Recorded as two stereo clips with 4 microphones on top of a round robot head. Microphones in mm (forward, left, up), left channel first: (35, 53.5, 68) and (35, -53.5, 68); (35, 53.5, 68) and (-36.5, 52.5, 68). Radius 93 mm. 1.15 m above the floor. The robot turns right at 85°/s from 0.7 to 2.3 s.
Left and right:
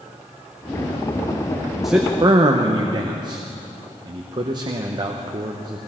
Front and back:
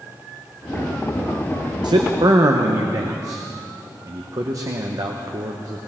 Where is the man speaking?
Straight behind, 1.0 m; by 5.8 s 140° right, 1.0 m.